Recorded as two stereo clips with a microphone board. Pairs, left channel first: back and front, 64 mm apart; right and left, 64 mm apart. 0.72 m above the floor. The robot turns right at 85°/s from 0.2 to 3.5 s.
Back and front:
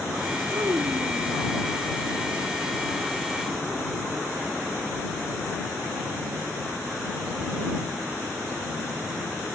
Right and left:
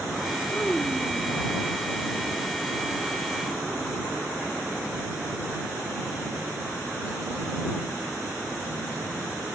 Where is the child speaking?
35° right; by 1.4 s 45° left.